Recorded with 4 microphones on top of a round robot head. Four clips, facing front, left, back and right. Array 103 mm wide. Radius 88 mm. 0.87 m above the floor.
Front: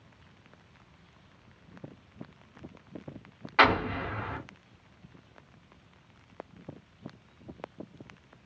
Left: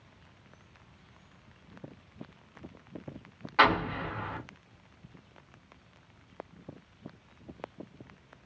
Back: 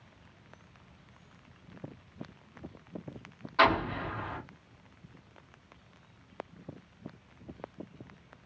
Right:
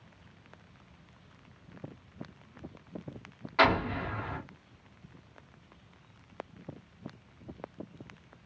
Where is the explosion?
10° left, 0.5 m.